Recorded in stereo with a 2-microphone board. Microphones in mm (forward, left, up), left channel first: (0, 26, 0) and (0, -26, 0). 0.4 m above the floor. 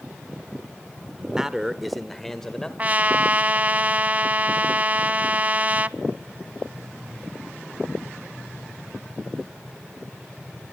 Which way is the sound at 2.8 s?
35° right (ahead or behind).